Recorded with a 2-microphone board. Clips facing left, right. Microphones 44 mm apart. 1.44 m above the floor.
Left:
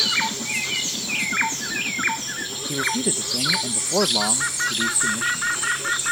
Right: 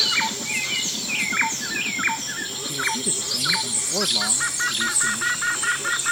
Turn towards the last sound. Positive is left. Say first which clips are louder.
# left 3 dB
turn(degrees=30)  # may be behind; listen again after turning